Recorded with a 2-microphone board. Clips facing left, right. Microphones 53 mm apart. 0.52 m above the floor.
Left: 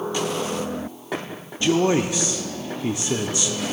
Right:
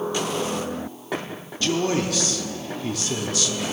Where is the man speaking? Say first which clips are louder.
Left 4 dB; 20° left (ahead or behind), 0.7 m.